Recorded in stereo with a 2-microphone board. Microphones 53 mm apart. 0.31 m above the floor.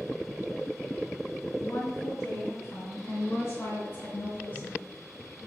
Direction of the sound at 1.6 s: 70° left (ahead or behind).